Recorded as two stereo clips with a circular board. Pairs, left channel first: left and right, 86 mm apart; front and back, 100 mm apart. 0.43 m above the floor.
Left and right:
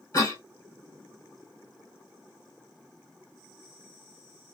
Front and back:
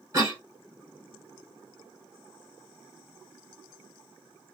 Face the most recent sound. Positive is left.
turn(degrees=130)